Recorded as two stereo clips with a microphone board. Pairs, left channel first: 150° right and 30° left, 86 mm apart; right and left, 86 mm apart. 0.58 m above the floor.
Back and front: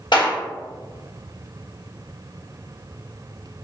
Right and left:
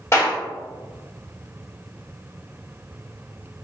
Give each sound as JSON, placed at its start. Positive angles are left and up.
{"t": 0.1, "sound": "a clap", "azimuth_deg": -140, "distance_m": 1.3}